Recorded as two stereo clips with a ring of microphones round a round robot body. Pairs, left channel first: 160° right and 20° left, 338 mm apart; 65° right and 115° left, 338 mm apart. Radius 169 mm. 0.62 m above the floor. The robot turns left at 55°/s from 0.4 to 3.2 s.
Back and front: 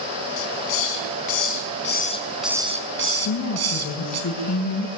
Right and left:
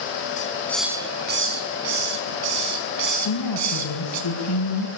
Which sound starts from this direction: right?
A woman speaking, at 3.2 s.